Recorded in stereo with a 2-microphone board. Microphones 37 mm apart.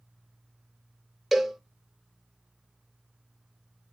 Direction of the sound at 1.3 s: 5° right (ahead or behind).